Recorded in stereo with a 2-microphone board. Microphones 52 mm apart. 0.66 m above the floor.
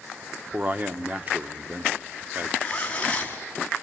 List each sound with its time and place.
0.5 s a man speaking: 30° right (ahead or behind), 1.1 m
2.6 s a zipper: 25° left (ahead or behind), 3 m